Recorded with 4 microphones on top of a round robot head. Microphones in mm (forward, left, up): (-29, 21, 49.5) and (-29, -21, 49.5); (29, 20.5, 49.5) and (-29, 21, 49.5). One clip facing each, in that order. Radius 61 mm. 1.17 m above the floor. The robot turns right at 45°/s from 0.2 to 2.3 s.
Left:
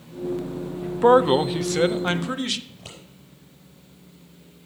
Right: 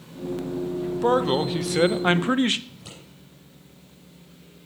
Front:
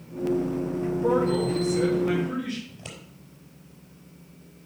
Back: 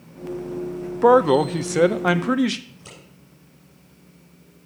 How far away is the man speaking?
About 0.5 m.